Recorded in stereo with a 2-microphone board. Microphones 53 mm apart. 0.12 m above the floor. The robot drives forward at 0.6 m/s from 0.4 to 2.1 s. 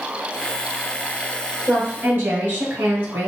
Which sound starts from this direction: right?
A woman speaking, at 1.7 s.